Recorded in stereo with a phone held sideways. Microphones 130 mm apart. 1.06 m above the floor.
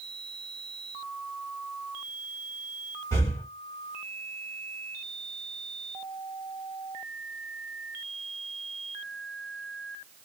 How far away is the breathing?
About 1.1 m.